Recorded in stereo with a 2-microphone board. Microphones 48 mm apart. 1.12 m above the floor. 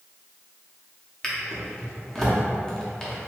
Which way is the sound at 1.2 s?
10° left (ahead or behind).